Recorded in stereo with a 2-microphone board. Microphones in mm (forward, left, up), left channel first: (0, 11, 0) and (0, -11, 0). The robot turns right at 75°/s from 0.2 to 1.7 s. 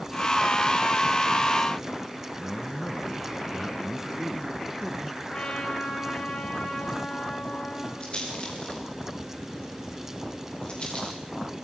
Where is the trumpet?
65° left (ahead or behind), 9 m.